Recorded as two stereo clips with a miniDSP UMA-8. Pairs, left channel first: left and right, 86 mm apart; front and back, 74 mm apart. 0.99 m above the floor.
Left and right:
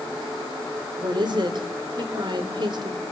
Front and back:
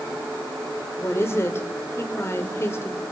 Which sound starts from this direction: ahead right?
A woman speaking, at 1.0 s.